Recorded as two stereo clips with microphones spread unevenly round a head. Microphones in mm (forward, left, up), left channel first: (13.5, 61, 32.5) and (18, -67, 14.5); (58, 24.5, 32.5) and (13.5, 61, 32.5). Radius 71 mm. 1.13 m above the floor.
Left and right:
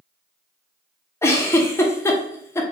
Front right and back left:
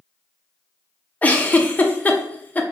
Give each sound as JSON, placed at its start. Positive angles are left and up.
{"t": 1.2, "sound": "a giggle", "azimuth_deg": 20, "distance_m": 0.8}